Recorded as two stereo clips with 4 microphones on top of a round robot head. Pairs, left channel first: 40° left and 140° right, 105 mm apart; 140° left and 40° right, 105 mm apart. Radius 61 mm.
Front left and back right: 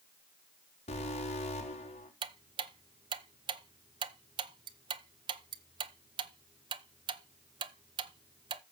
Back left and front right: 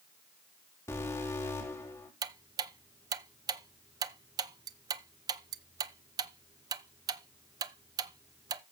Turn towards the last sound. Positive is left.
turn(degrees=-95)